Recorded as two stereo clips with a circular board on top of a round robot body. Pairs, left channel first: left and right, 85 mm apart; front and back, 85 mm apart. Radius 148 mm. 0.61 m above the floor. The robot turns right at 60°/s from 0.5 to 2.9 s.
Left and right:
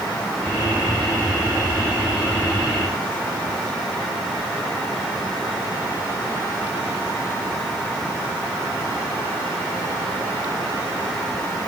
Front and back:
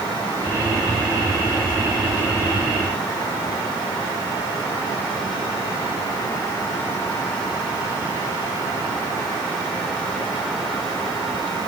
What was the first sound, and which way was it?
Only background noise.